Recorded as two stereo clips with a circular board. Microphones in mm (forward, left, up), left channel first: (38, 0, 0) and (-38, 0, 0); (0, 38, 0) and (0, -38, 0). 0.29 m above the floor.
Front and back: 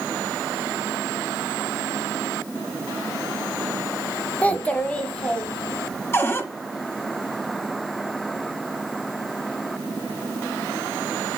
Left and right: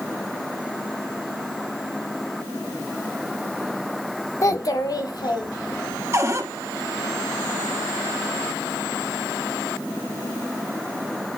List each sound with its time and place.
4.4 s a child speaking: 65° left, 0.7 m; by 6.0 s 75° left, 1.7 m
6.1 s a cupboard door: 50° right, 1.1 m